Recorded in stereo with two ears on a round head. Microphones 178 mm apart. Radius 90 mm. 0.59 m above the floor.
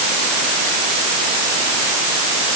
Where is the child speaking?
I don't hear a child speaking.